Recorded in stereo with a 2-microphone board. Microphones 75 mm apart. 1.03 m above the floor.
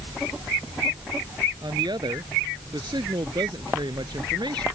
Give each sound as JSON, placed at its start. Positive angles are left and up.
{"t": 1.6, "sound": "a woman speaking", "side_deg": -75}